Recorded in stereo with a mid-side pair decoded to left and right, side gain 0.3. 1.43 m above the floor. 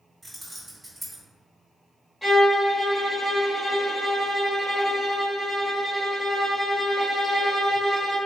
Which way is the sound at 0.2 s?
25° right.